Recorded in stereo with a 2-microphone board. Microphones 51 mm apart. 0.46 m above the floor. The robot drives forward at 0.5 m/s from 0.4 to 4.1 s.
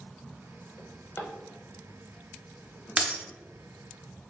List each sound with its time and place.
0.8 s a drawer: 70° left (ahead or behind), 0.5 m; by 3.0 s 20° left (ahead or behind), 1.4 m
3.0 s breaking glass: 25° right (ahead or behind), 0.7 m; by 3.2 s 20° right (ahead or behind), 0.9 m